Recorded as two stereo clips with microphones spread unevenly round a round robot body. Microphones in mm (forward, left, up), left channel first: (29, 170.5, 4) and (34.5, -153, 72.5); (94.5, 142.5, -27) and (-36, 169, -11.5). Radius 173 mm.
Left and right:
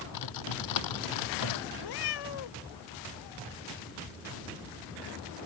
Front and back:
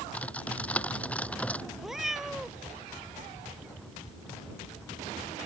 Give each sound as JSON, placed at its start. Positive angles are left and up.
{"t": 0.1, "sound": "typing on a keyboard", "azimuth_deg": 70}
{"t": 1.8, "sound": "a cat meowing", "azimuth_deg": 80}